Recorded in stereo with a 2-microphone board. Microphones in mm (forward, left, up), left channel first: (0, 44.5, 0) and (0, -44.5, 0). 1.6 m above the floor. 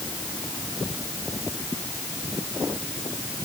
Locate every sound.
Only background noise.